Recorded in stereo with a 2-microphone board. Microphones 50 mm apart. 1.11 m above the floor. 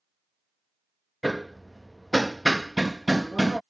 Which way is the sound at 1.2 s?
Centre (ahead or behind).